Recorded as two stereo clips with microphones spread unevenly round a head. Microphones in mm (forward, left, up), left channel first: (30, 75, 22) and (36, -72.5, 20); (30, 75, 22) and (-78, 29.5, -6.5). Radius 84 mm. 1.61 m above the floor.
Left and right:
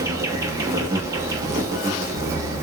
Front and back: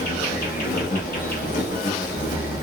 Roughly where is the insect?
Ahead.